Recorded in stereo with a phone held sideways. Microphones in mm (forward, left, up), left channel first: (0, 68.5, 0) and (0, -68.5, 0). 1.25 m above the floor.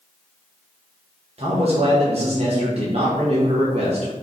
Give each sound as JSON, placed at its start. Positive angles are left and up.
{"t": 1.4, "sound": "a man speaking", "side_deg": -50, "distance_m": 0.9}